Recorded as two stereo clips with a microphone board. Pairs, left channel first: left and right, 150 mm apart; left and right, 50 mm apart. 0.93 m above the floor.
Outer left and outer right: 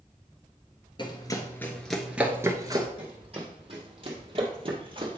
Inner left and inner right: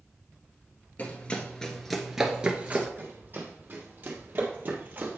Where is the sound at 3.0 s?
40° right (ahead or behind), 2 m; by 5.2 s 35° right (ahead or behind), 1.2 m.